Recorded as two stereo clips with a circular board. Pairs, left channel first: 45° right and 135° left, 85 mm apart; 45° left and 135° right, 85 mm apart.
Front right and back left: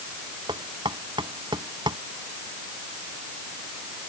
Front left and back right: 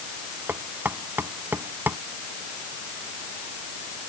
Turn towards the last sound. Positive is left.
turn(degrees=160)